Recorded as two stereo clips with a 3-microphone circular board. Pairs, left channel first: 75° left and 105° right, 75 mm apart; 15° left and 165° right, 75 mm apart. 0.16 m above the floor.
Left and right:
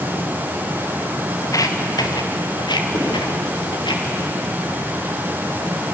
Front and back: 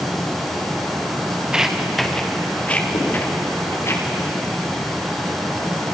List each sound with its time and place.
1.4 s footsteps: 115° left, 2.5 m; by 3.9 s 70° left, 5 m
2.9 s writing: 40° left, 9.5 m